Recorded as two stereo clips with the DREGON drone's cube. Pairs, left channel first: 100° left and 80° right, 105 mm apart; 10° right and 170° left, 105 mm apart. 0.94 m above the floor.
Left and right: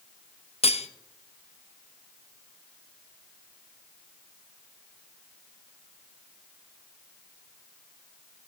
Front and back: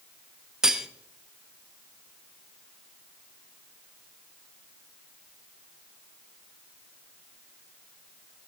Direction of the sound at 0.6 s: 85° left.